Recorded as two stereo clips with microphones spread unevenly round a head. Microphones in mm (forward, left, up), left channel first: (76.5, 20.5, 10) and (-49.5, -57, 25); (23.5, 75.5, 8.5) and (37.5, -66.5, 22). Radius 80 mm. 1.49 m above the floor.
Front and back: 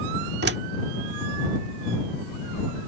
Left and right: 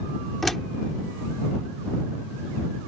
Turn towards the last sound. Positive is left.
turn(degrees=-175)